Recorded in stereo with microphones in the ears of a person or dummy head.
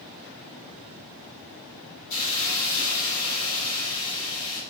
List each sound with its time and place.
2.1 s a hiss: 50° left (ahead or behind), 9.5 m